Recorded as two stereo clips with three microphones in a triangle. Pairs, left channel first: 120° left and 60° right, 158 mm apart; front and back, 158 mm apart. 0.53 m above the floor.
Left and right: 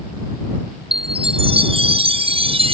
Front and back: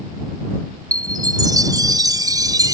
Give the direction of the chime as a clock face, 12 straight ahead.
4 o'clock.